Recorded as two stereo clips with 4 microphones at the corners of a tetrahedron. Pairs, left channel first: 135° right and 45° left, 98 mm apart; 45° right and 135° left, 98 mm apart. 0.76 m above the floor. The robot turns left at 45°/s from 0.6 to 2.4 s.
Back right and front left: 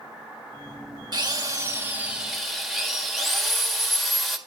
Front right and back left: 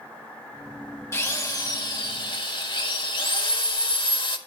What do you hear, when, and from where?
1.1 s a drill: 10° left, 1.6 m; by 4.4 s 45° right, 1.6 m